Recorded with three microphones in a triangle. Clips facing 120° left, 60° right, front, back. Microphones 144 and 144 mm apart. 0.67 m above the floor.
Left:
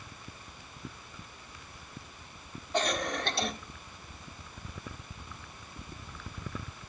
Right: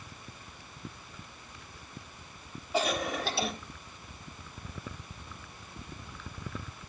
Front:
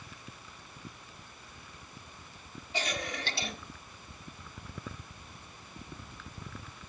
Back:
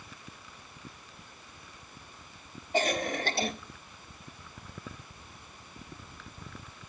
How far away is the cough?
About 1.4 m.